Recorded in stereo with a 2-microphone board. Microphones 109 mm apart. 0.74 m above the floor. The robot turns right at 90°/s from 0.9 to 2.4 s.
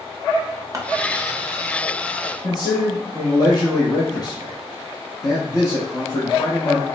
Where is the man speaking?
40° left (ahead or behind), 0.8 m.